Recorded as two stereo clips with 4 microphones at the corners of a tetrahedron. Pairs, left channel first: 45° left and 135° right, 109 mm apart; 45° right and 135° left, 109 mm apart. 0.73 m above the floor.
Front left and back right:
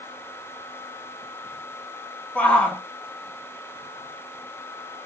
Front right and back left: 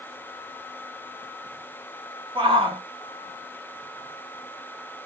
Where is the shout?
120° left, 1.0 m.